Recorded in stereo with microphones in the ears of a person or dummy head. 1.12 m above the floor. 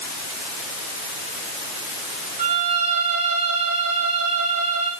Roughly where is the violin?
Right.